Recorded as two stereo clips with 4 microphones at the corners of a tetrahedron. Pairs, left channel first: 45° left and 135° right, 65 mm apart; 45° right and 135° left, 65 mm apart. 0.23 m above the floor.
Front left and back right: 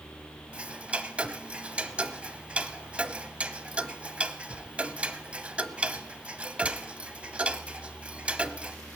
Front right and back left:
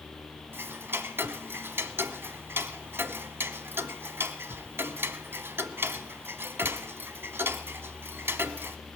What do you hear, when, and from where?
0.5 s ticking: 165° left, 0.7 m